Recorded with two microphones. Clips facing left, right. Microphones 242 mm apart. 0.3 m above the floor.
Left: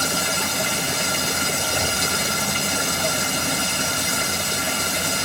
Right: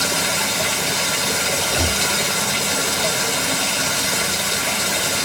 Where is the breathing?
70° right (ahead or behind), 3.5 m.